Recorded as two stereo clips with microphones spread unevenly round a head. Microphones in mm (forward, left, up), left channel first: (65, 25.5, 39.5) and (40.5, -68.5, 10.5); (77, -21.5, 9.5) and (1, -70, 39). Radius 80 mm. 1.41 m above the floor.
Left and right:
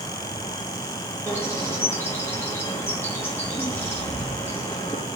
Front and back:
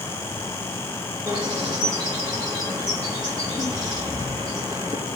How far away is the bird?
About 1.4 m.